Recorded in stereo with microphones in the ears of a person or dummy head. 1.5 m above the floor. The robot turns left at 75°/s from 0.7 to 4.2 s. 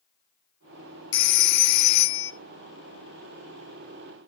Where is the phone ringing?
110° left, 0.9 m; by 2.3 s 20° left, 0.9 m.